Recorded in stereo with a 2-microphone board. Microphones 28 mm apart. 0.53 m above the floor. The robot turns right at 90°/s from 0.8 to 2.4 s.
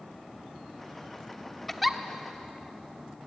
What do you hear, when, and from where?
1.7 s a giggle: 10° left (ahead or behind), 1.0 m; by 2.0 s 5° right (ahead or behind), 1.0 m